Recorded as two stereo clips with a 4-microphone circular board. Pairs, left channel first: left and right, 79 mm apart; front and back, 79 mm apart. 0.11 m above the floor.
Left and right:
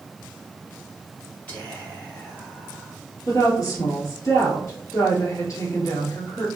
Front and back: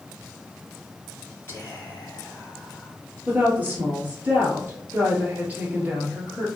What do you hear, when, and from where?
1.5 s whispering: 40° left, 1.7 m
3.3 s a woman speaking: 115° left, 1.7 m